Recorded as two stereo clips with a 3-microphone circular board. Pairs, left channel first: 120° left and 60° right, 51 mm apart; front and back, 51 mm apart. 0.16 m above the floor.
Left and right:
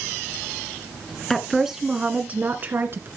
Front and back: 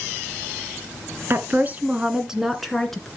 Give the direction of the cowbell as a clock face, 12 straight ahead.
No cowbell in this recording.